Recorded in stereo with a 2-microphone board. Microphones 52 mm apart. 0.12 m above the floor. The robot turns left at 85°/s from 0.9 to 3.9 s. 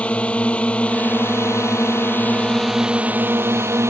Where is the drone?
150° left; by 3.9 s 105° right.